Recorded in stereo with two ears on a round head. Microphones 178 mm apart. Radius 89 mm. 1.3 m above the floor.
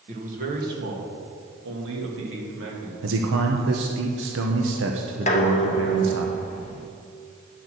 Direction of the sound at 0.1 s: 40° right (ahead or behind).